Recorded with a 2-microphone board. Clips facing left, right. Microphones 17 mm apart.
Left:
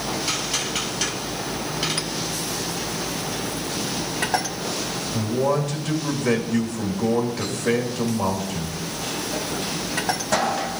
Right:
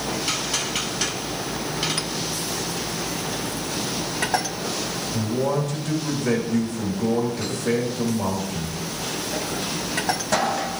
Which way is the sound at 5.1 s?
20° left (ahead or behind).